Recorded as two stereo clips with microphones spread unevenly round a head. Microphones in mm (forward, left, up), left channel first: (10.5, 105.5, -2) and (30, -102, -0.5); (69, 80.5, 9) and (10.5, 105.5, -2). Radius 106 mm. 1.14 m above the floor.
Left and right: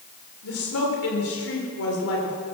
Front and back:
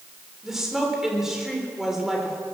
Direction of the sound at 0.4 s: 70° left.